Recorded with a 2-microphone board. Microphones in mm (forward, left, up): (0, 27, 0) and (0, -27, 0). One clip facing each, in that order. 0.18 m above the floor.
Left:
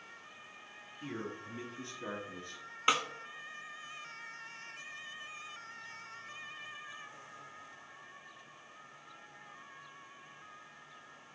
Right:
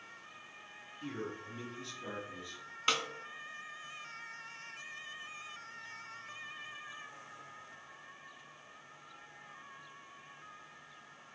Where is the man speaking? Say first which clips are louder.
Even; 15° left (ahead or behind), 3.5 m; by 2.6 s 55° left (ahead or behind), 3 m.